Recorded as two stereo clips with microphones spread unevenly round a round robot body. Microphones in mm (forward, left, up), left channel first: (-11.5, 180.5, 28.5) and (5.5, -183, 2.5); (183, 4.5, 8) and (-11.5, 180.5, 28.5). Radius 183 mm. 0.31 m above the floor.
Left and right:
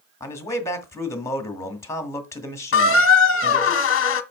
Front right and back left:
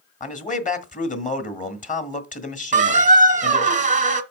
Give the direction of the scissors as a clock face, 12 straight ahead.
I don't hear scissors.